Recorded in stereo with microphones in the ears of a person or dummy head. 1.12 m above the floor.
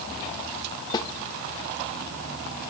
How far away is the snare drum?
About 1.8 m.